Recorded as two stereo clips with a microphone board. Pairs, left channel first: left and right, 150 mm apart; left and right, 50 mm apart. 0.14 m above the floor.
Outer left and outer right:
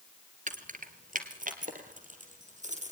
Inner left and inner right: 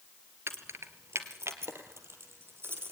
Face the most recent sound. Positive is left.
turn(degrees=-50)  # may be behind; listen again after turning